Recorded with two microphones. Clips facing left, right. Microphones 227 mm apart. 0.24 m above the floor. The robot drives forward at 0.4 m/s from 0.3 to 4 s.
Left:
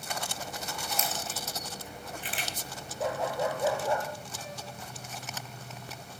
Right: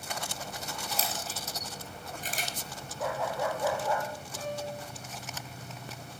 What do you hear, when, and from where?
0.9 s a camera shutter: 35° right (ahead or behind), 2.5 m; by 2.5 s 45° right (ahead or behind), 2 m
3.0 s a dog barking: 20° left (ahead or behind), 2.5 m; by 4.1 s 25° left (ahead or behind), 2 m
4.4 s a piano: 80° right, 6.5 m